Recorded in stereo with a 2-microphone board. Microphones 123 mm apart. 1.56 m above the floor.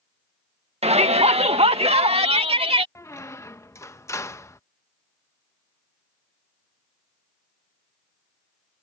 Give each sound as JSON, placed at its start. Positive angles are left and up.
{"t": 0.8, "sound": "a shout", "side_deg": -55}
{"t": 3.0, "sound": "a squeak", "side_deg": 25}